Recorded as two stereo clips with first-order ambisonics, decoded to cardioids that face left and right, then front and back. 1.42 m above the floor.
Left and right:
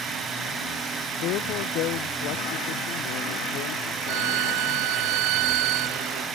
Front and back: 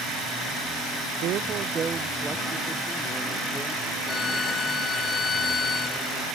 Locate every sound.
1.2 s a woman speaking: 135° left; by 5.0 s 70° left
4.1 s a violin: 70° right